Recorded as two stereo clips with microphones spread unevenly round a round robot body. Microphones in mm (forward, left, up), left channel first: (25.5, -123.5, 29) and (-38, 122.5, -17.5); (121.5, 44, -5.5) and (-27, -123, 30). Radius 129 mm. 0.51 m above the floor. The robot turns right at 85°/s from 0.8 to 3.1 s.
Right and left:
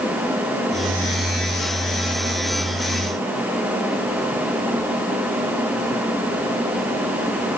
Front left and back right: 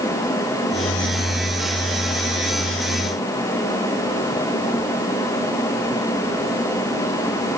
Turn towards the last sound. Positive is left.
No sound to turn to.